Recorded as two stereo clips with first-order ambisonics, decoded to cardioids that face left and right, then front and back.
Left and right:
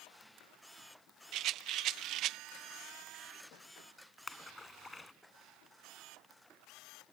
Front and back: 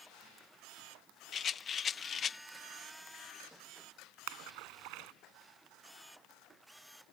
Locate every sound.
1.3 s a rattle: 60° right
4.3 s a splash: 175° left